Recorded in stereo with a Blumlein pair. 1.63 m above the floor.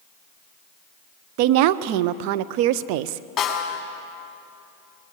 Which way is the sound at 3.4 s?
20° left.